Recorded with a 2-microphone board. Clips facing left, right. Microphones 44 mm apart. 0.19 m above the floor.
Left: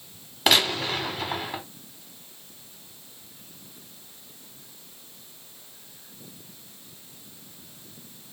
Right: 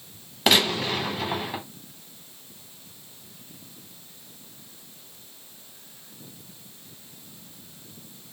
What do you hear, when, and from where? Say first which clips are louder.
0.5 s a gunshot: right 1 dB; centre (ahead or behind), 1.0 m